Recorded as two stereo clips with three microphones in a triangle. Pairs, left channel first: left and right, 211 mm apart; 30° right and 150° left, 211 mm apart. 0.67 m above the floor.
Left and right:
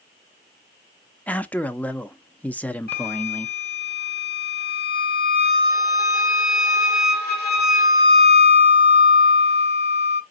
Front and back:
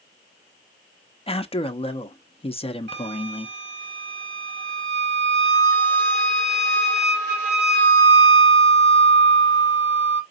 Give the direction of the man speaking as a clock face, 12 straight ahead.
12 o'clock.